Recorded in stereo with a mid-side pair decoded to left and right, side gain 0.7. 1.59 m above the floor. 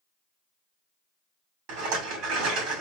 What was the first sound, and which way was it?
A rattle, 70° right.